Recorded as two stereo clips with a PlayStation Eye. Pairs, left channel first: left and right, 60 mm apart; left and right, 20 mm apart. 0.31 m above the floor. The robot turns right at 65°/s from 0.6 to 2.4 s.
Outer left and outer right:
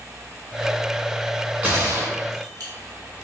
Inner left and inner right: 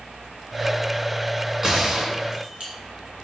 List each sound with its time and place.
1.6 s a gunshot: 165° right, 1.7 m; by 2.7 s 115° right, 1.7 m